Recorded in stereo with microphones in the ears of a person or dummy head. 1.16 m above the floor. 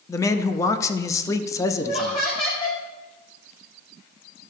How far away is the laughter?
About 1.6 m.